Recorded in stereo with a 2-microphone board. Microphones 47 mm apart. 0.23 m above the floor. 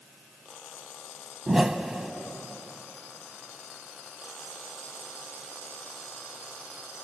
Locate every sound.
1.5 s a whoosh: 10° right (ahead or behind), 0.7 m